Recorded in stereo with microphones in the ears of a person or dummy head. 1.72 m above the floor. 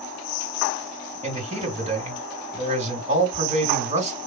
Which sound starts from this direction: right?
A man speaking, at 1.2 s.